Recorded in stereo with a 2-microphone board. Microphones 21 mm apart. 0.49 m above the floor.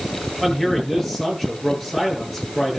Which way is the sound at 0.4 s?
Centre (ahead or behind).